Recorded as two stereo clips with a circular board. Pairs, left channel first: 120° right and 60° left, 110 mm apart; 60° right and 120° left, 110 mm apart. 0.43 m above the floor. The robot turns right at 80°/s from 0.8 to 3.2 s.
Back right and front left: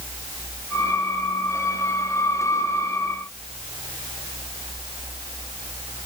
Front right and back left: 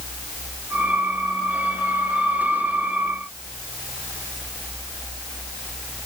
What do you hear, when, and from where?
Only background noise.